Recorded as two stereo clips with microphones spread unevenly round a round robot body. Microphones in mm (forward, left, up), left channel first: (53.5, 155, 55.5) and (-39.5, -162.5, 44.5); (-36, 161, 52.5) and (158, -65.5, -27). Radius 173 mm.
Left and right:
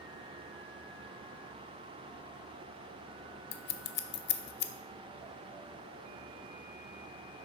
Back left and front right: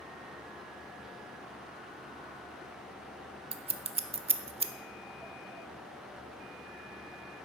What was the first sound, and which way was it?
Scissors, 15° left.